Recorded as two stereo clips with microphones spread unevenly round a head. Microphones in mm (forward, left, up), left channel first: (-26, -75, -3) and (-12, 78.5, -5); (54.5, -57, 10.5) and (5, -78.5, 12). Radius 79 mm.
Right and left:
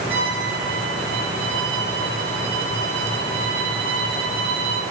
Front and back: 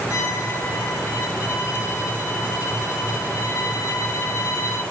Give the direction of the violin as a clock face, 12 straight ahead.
11 o'clock.